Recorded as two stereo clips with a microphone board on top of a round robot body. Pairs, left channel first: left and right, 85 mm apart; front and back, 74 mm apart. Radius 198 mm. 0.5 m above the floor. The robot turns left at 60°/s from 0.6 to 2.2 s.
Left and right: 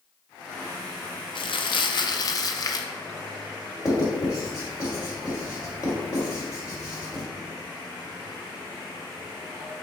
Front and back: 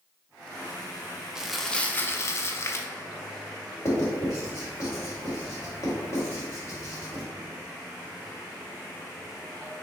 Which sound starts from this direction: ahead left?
Writing, at 3.9 s.